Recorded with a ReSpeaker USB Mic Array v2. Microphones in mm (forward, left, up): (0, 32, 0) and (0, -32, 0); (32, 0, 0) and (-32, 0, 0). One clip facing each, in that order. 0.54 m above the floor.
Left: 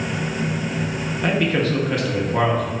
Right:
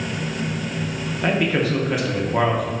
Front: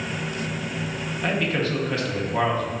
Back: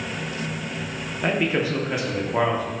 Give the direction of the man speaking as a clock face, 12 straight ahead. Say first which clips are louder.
Even, back 2 dB; 5 o'clock.